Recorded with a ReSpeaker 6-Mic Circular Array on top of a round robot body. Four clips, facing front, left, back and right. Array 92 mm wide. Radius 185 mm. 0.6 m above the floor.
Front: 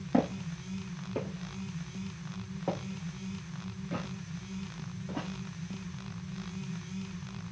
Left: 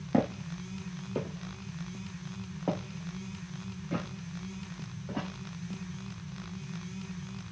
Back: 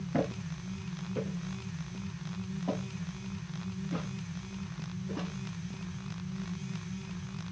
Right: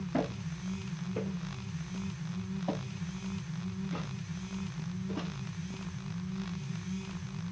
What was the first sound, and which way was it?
Footsteps, 60° left.